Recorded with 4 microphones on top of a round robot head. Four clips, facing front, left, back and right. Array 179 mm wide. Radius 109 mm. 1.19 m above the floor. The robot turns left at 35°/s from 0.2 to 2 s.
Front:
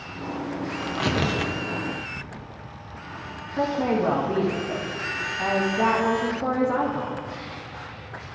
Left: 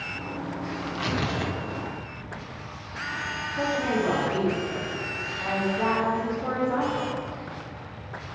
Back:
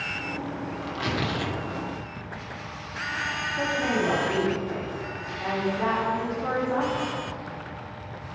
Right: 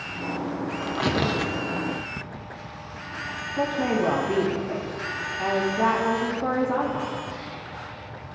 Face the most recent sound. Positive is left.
turn(degrees=-30)